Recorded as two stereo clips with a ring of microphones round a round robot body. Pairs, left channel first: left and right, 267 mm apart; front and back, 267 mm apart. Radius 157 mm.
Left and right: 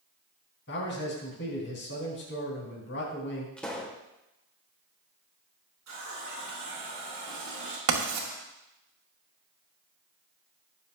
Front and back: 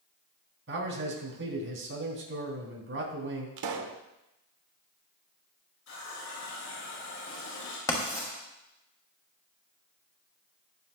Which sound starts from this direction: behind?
A pop, at 3.6 s.